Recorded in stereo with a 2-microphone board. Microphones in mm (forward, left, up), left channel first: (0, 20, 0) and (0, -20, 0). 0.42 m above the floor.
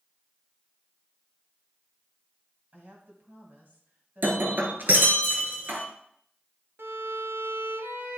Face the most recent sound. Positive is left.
turn(degrees=-80)